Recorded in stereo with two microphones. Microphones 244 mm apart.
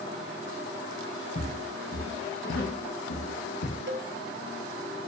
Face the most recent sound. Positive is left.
turn(degrees=-50)  # may be behind; listen again after turning